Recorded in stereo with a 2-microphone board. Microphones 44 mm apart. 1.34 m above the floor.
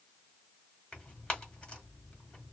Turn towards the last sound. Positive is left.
turn(degrees=20)  # may be behind; listen again after turning